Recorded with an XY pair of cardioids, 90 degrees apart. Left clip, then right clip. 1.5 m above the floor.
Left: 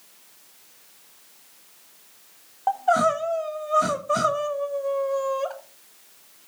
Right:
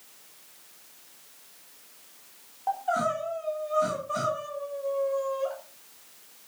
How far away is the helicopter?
No helicopter in this recording.